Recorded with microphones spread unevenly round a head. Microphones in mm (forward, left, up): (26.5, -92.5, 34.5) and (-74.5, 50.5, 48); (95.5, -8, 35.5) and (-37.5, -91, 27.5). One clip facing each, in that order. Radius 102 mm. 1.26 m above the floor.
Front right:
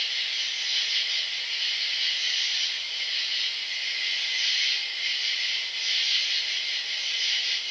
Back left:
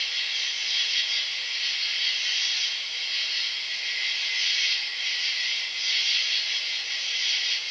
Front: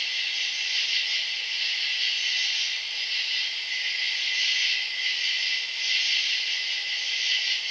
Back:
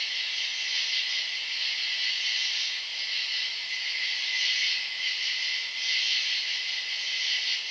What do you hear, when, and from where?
0.0 s an insect: straight ahead, 3 m